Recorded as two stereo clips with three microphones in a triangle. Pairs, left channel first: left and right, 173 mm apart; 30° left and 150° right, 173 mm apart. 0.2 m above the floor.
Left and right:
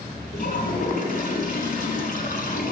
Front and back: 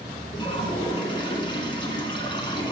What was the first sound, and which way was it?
A toilet flushing, 85° left.